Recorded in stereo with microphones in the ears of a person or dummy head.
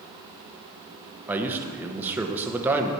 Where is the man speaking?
10° right (ahead or behind), 0.9 m.